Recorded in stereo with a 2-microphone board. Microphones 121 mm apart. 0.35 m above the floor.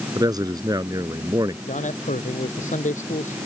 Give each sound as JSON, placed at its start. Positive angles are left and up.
{"t": 0.1, "sound": "a man speaking", "side_deg": -30}
{"t": 1.7, "sound": "a man speaking", "side_deg": 85}